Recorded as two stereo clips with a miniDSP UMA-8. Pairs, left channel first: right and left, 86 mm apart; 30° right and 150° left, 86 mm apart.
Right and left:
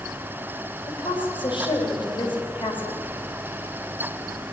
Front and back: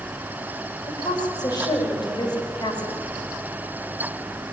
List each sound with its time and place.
0.9 s a woman speaking: 65° right, 4.5 m